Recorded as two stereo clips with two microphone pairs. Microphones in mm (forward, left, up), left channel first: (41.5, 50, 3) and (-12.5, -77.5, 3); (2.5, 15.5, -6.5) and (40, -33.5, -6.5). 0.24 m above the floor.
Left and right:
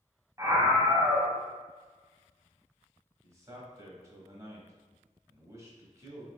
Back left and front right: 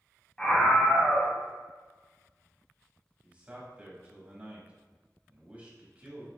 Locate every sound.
0.4 s a scream: 165° right, 1.2 m
3.2 s a man speaking: 80° right, 1.1 m